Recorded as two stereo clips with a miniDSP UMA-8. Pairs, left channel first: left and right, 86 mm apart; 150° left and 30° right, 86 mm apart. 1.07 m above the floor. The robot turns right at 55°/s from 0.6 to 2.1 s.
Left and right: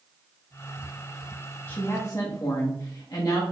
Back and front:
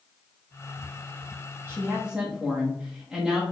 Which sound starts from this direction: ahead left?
A woman speaking, at 1.7 s.